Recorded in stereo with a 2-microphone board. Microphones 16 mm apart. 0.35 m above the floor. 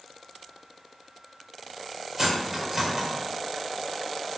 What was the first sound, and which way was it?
Cutlery clinking, 20° right (ahead or behind).